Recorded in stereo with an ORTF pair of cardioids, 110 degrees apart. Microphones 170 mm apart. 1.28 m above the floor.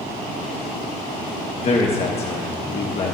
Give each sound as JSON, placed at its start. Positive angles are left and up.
{"t": 1.6, "sound": "a man speaking", "azimuth_deg": 40, "distance_m": 1.4}